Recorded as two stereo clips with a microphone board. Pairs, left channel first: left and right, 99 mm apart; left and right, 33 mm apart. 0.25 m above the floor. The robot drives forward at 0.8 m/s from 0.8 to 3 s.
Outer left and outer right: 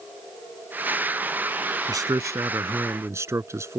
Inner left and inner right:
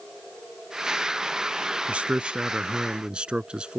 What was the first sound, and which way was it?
A man speaking, 40° right (ahead or behind).